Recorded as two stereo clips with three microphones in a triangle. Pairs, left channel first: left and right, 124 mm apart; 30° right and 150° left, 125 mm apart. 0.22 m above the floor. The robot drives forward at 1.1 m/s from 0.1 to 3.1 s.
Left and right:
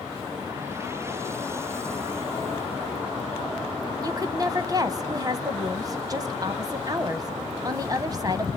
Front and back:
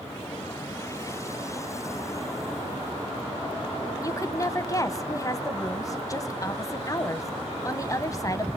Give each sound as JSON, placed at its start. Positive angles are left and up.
{"t": 4.0, "sound": "a woman speaking", "azimuth_deg": -65, "distance_m": 1.2}